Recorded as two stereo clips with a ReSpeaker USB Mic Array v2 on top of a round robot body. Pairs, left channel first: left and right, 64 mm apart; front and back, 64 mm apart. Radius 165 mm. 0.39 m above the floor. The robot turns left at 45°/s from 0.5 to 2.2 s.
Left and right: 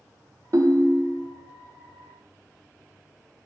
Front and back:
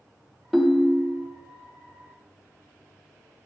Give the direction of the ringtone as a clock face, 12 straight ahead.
3 o'clock.